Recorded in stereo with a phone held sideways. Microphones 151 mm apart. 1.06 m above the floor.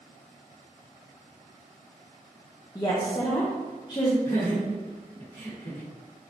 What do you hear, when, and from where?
2.8 s a woman speaking: 30° left (ahead or behind), 0.6 m
4.2 s laughter: 55° left (ahead or behind), 1.3 m